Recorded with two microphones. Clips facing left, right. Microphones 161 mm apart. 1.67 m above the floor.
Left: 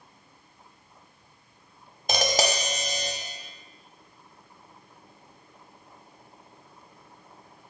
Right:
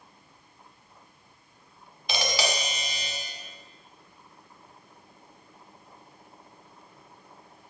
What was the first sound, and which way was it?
Tapping, 45° left (ahead or behind).